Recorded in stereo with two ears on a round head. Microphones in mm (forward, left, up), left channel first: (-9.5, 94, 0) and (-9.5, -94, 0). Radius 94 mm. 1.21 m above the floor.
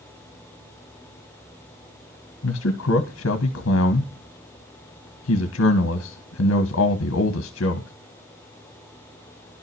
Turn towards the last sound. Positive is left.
turn(degrees=65)  # may be behind; listen again after turning